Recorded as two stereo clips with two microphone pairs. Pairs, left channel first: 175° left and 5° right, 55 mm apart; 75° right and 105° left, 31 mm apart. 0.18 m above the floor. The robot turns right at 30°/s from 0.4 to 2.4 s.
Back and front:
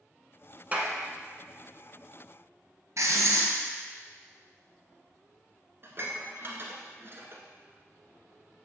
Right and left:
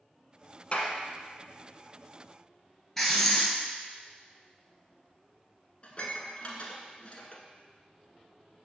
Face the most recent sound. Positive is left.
turn(degrees=-30)